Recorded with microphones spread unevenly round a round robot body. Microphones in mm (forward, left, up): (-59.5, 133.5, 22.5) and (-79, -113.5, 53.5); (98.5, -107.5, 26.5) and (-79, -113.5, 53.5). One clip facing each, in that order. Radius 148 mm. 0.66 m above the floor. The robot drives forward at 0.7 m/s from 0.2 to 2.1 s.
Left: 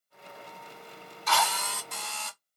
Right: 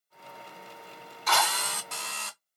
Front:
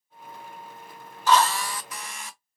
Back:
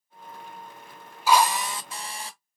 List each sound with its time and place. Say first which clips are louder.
1.3 s a drill: even, even; 95° right, 1.2 m; by 2.4 s 120° right, 1.4 m